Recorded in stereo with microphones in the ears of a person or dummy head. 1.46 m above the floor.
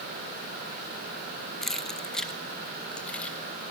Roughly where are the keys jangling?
Centre.